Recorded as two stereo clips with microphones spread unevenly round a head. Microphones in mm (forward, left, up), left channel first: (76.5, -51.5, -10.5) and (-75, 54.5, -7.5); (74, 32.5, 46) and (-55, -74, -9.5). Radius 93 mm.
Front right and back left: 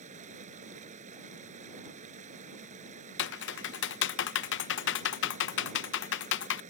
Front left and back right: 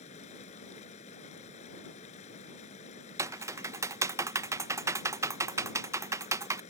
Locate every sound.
0.0 s running water: 90° left
3.2 s typing on a keyboard: 65° right